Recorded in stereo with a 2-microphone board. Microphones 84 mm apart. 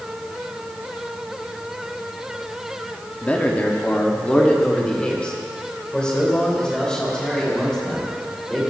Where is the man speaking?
20° left (ahead or behind), 1.2 m; by 8.6 s 10° left (ahead or behind), 4.5 m.